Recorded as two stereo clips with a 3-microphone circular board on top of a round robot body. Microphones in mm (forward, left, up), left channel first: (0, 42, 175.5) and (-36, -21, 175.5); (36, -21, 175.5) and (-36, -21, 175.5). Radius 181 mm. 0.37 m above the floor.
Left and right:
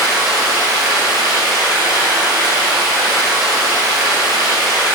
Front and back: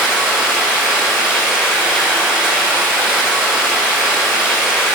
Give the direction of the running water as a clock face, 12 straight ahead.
3 o'clock.